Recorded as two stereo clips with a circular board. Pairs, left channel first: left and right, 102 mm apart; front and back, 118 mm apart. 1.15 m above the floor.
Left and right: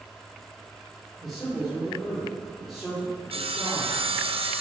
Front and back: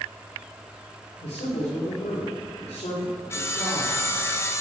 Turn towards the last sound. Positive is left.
turn(degrees=-70)